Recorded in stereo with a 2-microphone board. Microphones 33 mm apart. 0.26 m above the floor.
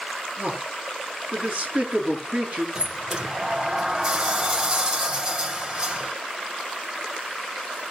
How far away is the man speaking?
About 5.5 m.